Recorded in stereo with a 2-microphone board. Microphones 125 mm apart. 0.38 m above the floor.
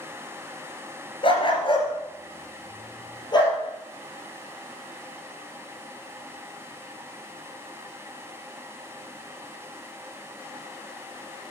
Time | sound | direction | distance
1.2 | a dog barking | 45° left (ahead or behind) | 3 m